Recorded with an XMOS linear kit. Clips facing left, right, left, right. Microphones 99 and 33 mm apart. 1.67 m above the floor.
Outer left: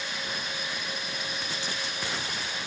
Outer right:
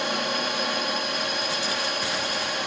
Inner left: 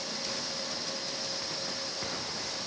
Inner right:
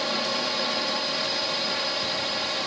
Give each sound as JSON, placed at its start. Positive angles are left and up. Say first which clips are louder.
{"t": 0.0, "sound": "a drone", "louder": "outer right 9 dB, inner right 10 dB", "side_deg": -65}